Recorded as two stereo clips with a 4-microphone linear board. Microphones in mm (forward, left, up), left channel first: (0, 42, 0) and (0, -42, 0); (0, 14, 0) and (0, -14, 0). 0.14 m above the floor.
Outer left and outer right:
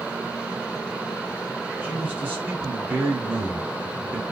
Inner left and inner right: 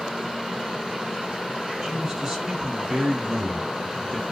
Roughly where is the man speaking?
Centre.